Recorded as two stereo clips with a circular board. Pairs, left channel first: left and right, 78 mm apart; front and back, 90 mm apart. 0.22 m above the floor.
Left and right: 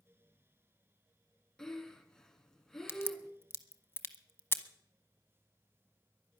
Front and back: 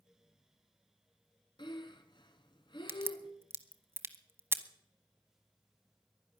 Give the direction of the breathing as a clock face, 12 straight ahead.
12 o'clock.